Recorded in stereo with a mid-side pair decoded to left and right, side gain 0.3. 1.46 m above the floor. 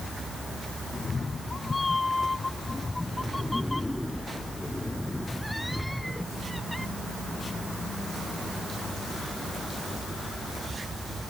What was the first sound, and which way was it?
A cat meowing, 50° left.